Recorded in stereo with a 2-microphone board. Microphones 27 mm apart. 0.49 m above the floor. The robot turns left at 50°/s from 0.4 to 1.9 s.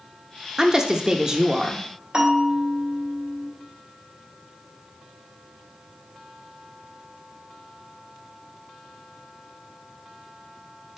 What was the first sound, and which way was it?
A woman speaking, 25° right (ahead or behind).